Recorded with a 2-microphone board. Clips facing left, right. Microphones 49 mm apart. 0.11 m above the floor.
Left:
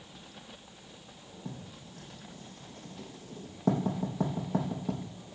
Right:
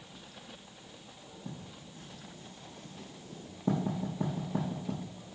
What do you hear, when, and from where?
1.4 s writing: 70° left (ahead or behind), 3.5 m